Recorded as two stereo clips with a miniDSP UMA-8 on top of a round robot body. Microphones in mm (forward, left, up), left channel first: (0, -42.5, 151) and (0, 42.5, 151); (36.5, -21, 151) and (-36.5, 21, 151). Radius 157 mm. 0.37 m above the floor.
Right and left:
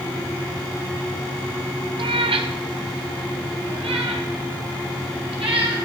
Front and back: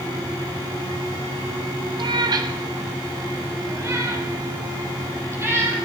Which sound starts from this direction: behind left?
A cat meowing, at 2.0 s.